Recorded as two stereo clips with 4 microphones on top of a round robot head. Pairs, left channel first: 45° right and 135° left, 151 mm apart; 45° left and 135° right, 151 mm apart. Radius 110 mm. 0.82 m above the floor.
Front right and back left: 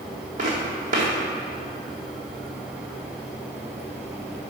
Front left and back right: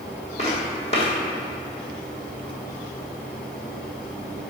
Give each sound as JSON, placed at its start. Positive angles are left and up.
{"t": 0.4, "sound": "footsteps", "azimuth_deg": 95, "distance_m": 1.7}